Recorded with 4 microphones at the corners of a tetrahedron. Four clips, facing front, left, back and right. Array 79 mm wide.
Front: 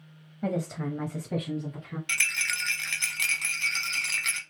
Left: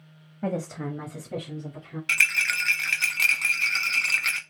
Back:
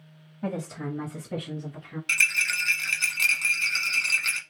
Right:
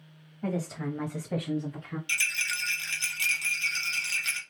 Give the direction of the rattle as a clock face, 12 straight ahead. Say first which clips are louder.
Left 8 dB, back 4 dB; 9 o'clock.